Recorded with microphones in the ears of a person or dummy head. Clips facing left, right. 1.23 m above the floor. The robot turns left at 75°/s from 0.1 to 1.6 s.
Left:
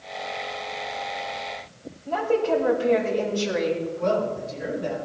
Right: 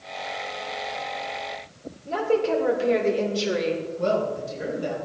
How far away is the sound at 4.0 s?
About 5.5 m.